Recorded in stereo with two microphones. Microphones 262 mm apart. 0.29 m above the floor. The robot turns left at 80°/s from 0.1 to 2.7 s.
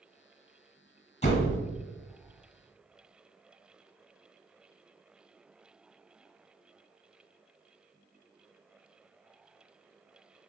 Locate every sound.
1.2 s a door slam: 25° left (ahead or behind), 1.2 m; by 1.6 s 50° left (ahead or behind), 1.2 m